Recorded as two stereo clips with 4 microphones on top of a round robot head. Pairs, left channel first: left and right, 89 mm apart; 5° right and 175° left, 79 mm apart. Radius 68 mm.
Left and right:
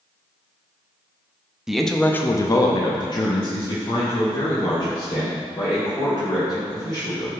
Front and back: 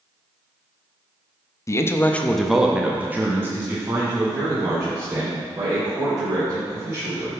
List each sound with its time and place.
1.7 s a man speaking: 10° right, 0.6 m; by 7.3 s 125° left, 3.5 m